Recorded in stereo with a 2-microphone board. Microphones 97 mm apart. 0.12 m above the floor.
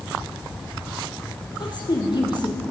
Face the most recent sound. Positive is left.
turn(degrees=50)  # may be behind; listen again after turning